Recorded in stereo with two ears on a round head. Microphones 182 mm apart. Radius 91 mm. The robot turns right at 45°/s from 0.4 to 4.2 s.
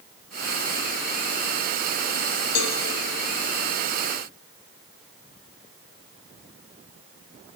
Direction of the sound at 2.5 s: 65° left (ahead or behind).